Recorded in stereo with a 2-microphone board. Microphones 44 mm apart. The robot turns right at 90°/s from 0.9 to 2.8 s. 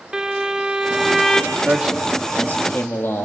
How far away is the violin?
About 1.1 m.